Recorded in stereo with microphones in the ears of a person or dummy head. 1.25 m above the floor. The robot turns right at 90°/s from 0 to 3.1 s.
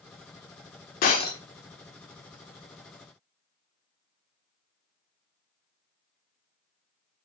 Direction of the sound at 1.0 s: 130° left.